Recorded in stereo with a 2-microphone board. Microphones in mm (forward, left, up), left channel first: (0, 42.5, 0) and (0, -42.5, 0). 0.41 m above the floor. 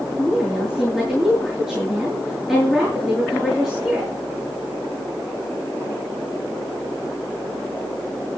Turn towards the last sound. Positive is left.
turn(degrees=5)  # may be behind; listen again after turning